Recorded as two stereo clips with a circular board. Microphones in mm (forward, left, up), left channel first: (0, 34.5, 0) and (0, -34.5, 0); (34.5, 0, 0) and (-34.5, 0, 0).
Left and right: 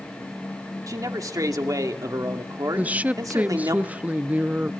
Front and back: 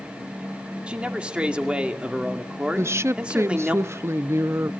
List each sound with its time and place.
0.9 s a man speaking: 110° right, 2 m
2.8 s a woman speaking: 150° right, 0.7 m